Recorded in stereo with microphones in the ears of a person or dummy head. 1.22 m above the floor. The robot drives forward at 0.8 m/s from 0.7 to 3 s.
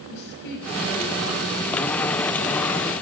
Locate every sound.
0.1 s a woman speaking: 55° left (ahead or behind), 8 m; by 1.9 s 60° left (ahead or behind), 7.5 m